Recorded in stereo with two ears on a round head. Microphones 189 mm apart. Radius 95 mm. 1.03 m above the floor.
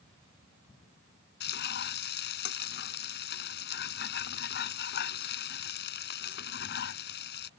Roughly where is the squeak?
I don't hear a squeak.